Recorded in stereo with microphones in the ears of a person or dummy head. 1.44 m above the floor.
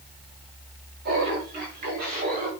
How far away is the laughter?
About 6 m.